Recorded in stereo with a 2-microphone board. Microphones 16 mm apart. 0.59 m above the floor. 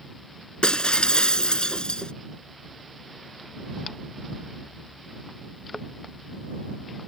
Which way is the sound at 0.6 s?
60° left (ahead or behind).